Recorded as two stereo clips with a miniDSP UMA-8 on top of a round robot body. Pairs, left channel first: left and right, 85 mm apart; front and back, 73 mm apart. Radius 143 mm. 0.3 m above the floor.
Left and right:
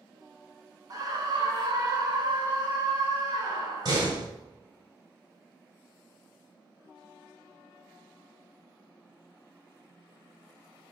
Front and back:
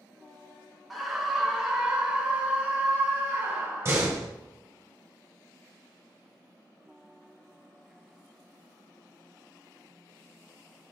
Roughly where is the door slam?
Behind right.